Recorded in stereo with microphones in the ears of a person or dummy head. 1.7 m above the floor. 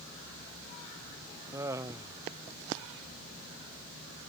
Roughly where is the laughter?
Centre.